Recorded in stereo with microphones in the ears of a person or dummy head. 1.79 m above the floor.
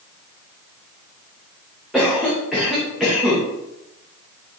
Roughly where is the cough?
Centre.